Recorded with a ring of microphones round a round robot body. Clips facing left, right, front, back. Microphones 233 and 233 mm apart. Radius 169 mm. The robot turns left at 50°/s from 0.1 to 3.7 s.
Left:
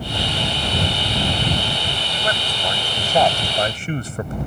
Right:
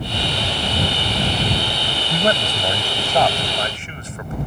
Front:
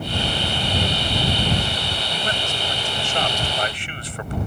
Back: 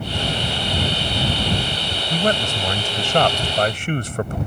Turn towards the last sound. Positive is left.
turn(degrees=145)